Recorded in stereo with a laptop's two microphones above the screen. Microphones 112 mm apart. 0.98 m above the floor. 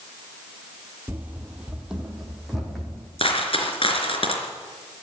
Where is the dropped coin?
55° left (ahead or behind), 3.5 m.